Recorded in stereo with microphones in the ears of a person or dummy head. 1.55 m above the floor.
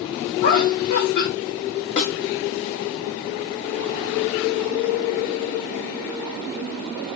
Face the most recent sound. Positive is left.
turn(degrees=35)  # may be behind; listen again after turning